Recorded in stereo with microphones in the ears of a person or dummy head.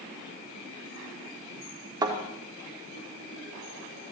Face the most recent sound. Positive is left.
turn(degrees=-25)  # may be behind; listen again after turning